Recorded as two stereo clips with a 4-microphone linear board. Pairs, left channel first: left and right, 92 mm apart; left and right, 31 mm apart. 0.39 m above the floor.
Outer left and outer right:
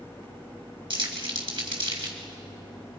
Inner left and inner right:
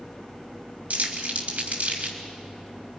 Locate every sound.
0.9 s crumpling: 65° right (ahead or behind), 3 m